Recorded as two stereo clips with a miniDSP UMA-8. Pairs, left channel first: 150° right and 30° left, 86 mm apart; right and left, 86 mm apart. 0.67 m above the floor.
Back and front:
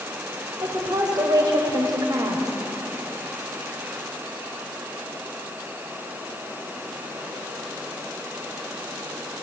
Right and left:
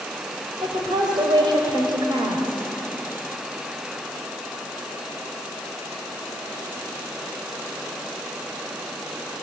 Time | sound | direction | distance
0.6 | a woman speaking | 65° left | 3.5 m